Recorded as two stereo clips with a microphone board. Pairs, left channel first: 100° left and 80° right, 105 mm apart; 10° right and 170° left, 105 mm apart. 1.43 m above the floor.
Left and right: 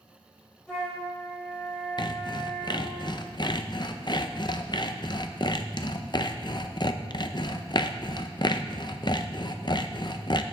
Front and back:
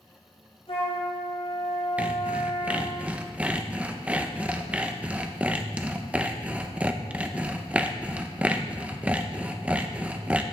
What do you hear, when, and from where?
0.7 s a flute: 20° left, 5 m
2.0 s sawing: 100° left, 0.6 m